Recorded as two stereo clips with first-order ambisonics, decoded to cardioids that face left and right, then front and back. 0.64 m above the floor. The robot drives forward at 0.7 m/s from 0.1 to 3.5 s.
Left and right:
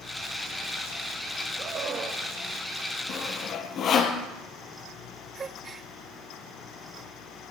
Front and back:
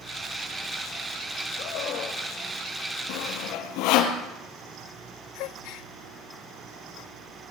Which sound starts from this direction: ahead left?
Sawing, at 3.1 s.